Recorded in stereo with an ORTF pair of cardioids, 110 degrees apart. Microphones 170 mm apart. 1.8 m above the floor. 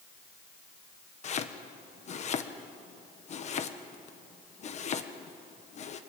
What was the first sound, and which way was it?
Chopping, 45° left.